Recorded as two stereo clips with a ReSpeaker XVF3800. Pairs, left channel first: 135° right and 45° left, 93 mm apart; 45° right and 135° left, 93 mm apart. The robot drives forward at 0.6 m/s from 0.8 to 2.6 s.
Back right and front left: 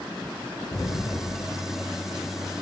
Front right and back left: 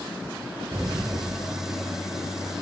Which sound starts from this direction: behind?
An explosion, at 0.7 s.